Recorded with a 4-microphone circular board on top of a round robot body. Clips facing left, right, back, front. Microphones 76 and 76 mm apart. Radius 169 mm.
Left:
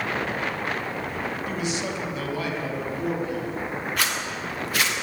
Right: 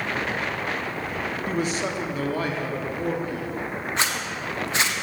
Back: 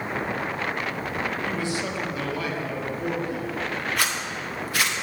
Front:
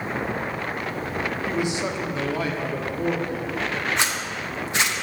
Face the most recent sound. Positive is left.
turn(degrees=-50)